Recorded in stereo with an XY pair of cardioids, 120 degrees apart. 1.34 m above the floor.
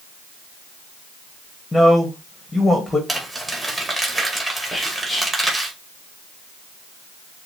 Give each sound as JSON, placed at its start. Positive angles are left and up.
{"t": 1.7, "sound": "a man speaking", "azimuth_deg": 10, "distance_m": 1.2}
{"t": 3.1, "sound": "crumpling", "azimuth_deg": -15, "distance_m": 2.0}
{"t": 4.7, "sound": "whispering", "azimuth_deg": -5, "distance_m": 1.2}